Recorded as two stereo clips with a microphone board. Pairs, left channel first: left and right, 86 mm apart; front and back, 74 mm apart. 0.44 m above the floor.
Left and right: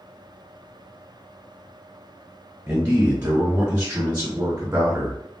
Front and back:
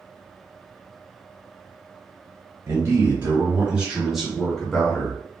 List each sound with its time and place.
2.7 s a man speaking: 160° right, 1.7 m; by 5.2 s 45° right, 1.5 m